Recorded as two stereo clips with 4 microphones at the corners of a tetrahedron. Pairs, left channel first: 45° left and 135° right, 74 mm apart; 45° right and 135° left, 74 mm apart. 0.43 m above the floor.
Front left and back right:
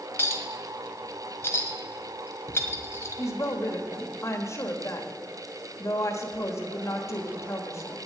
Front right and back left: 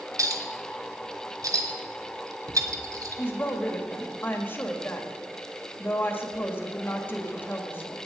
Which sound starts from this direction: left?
A clink, at 0.2 s.